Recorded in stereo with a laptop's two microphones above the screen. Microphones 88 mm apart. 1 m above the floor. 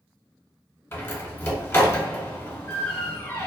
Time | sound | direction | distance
0.9 | a door slam | 25° left (ahead or behind) | 1.1 m